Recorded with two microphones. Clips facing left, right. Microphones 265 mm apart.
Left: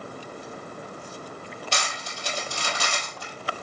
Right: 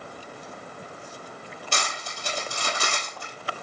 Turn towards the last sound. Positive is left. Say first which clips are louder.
# right 3 dB
turn(degrees=-55)  # may be behind; listen again after turning